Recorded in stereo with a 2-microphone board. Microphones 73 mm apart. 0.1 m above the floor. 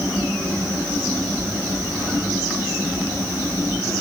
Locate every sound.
Only background noise.